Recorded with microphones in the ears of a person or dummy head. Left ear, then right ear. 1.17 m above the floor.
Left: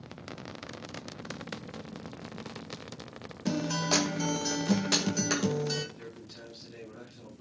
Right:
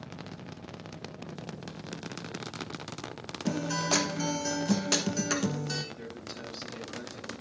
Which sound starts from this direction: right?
A man speaking, at 6.0 s.